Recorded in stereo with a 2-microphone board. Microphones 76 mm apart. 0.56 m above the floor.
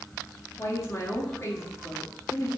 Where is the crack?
No crack in this recording.